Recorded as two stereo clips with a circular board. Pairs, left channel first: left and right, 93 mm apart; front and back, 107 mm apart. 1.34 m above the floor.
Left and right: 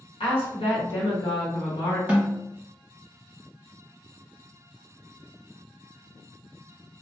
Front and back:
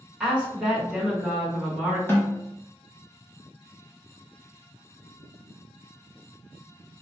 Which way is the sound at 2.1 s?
35° right.